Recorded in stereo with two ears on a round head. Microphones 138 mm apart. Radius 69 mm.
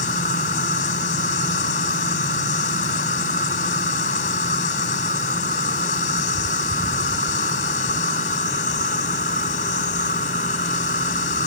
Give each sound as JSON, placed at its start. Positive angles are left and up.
{"t": 0.0, "sound": "an insect", "side_deg": 55}